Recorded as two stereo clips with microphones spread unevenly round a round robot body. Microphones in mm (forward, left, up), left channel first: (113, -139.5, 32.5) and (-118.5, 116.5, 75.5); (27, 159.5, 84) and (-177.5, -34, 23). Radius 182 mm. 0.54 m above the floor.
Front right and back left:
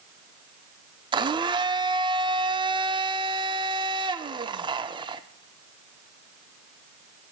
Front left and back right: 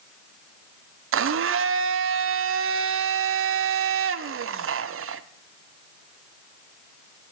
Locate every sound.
1.1 s a blender: 150° right, 0.6 m